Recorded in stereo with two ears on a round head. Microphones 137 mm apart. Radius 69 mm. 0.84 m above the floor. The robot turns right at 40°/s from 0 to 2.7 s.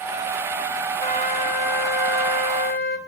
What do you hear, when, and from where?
1.0 s a flute: 40° left, 1.1 m; by 3.0 s 110° left, 1.1 m